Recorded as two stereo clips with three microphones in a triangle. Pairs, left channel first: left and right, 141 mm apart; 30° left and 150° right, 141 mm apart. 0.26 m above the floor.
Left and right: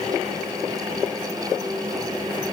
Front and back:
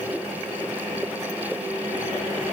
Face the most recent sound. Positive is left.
No sound to turn to.